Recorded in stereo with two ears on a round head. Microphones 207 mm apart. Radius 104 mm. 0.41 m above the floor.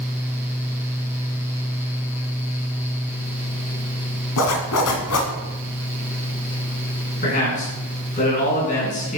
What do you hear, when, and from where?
4.4 s a zipper: 75° left (ahead or behind), 1.8 m
7.2 s a man speaking: 35° left (ahead or behind), 4.5 m